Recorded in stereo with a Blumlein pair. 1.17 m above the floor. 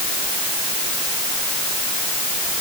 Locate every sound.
Only background noise.